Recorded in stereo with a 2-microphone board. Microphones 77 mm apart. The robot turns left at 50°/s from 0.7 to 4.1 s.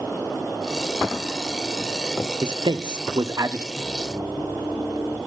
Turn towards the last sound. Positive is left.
turn(degrees=-55)  # may be behind; listen again after turning